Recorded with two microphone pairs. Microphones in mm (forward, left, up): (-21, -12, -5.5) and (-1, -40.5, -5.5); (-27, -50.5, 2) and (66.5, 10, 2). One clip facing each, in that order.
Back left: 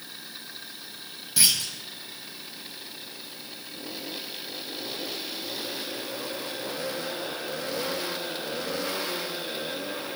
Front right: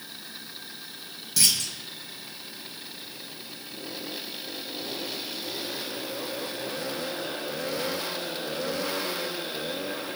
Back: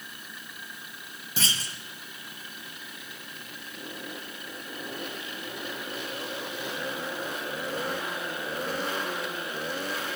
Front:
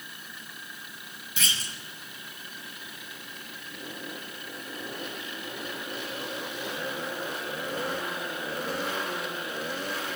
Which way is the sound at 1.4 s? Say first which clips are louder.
Back left 1 dB, back 2 dB; 175° right.